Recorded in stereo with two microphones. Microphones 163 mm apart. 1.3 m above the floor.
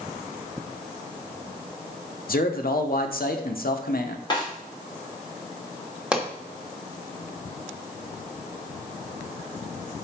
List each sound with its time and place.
2.3 s a man speaking: 75° left (ahead or behind), 0.8 m
4.3 s a snare drum: 30° left (ahead or behind), 2 m
6.1 s a pop: 5° right (ahead or behind), 1.0 m